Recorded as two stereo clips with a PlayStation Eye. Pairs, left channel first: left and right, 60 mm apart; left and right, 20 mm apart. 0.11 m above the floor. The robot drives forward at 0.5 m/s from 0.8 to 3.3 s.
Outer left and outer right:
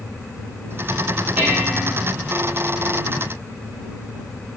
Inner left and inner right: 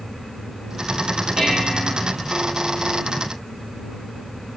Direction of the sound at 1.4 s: 25° right (ahead or behind).